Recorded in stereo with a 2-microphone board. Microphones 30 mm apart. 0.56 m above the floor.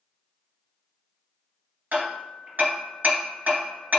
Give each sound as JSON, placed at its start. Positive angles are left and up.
{"t": 1.9, "sound": "hammering", "side_deg": -80, "distance_m": 2.5}